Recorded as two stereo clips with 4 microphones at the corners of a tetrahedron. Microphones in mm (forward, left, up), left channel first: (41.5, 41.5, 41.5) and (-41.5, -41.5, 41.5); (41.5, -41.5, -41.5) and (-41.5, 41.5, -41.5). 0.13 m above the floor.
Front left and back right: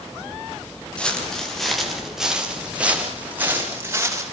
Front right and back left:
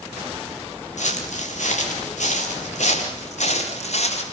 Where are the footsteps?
35° right, 7 m; by 4.2 s 65° right, 8.5 m.